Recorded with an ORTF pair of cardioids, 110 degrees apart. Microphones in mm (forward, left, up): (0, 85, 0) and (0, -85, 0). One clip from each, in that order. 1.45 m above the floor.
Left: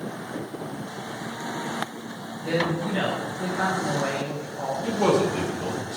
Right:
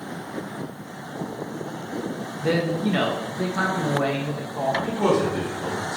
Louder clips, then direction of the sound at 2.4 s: Right 2 dB; 55° right.